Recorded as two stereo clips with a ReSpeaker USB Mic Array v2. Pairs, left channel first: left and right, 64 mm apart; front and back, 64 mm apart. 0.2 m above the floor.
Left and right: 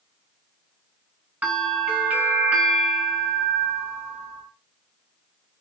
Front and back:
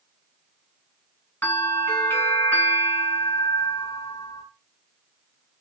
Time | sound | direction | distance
1.4 | a bell | 35° right | 1.9 m